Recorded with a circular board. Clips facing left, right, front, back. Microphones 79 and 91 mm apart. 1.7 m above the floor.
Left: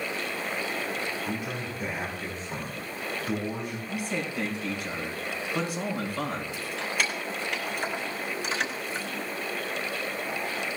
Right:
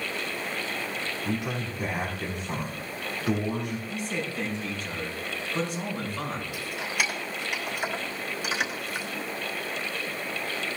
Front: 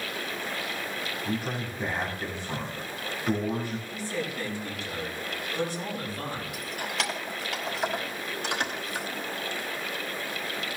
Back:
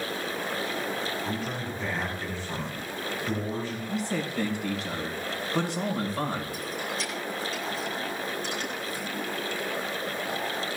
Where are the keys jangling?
15° right, 4.5 m.